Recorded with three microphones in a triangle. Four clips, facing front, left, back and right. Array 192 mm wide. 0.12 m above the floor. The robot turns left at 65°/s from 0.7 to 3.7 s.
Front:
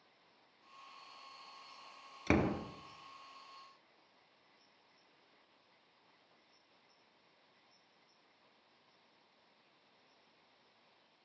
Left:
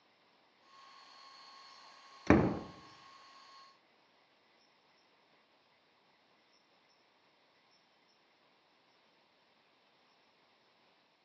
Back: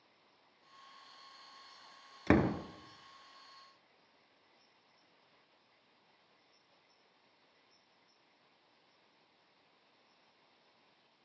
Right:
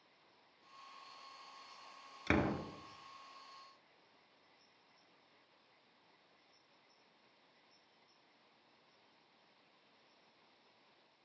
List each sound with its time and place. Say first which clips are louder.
2.3 s a door slam: left 7 dB, back 3 dB; 115° left, 1.5 m; by 2.6 s 95° left, 1.5 m